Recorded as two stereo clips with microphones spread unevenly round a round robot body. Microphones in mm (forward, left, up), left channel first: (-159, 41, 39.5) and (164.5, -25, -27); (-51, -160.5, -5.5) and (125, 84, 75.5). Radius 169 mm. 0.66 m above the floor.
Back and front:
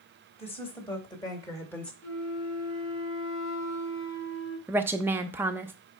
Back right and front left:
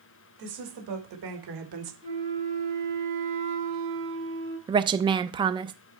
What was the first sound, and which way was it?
A woman speaking, 95° left.